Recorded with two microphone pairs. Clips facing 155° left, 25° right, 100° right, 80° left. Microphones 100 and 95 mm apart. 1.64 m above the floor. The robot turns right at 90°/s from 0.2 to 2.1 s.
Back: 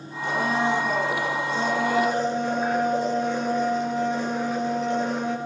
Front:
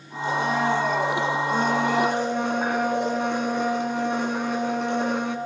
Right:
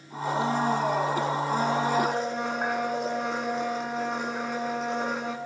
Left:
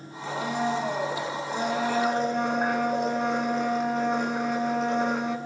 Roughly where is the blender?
Behind.